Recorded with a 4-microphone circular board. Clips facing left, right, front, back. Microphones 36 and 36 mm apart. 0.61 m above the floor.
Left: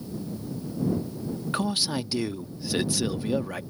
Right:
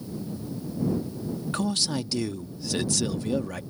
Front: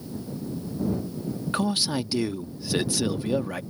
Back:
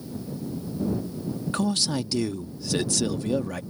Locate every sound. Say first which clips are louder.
1.5 s a man speaking: left 1 dB, even; 40° left